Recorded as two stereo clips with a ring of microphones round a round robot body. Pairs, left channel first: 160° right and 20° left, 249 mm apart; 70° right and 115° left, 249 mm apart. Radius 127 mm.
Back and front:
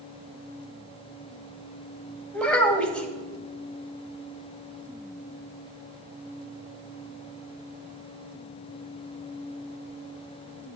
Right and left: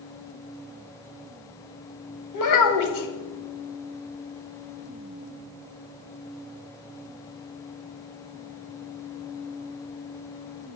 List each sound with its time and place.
2.3 s a child speaking: 70° right, 1.8 m